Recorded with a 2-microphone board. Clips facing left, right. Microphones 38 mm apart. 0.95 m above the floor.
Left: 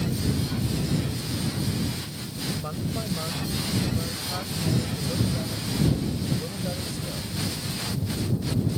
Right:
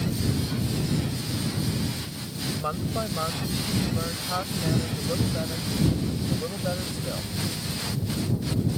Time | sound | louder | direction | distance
2.6 | a woman speaking | right 3 dB | 40° right (ahead or behind) | ?